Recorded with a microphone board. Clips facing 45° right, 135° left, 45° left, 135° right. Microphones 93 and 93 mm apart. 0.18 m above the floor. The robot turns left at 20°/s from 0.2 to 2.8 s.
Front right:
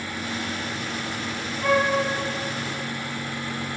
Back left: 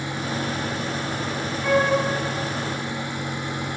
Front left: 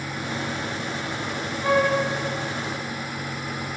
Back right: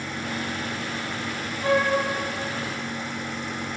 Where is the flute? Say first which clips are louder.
Back left 1 dB, front left 1 dB; 15° right, 1.9 m; by 1.9 s 20° right, 1.9 m.